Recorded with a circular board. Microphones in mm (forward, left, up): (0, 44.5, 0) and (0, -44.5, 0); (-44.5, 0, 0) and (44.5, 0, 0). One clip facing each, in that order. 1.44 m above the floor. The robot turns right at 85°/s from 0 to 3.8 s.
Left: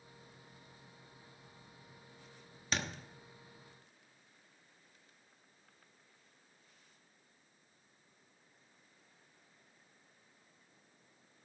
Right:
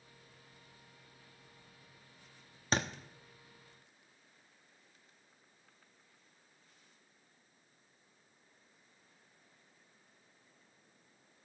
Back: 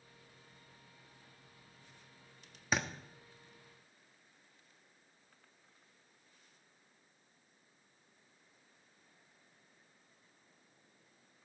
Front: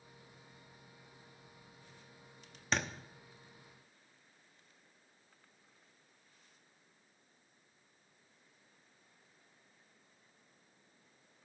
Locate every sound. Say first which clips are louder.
2.7 s a thud: right 4 dB, even; 100° right, 1.0 m; by 2.9 s 90° right, 1.0 m